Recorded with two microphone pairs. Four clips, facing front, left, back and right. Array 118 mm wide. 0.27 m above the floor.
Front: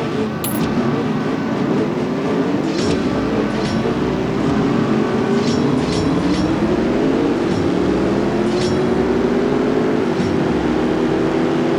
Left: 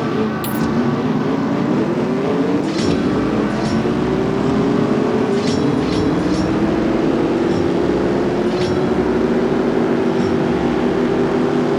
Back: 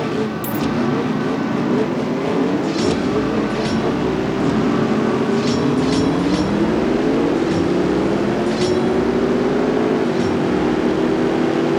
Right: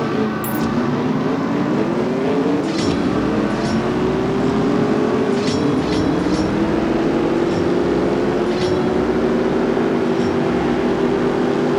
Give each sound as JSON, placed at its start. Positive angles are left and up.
{"t": 0.4, "sound": "a dropped coin", "azimuth_deg": -10}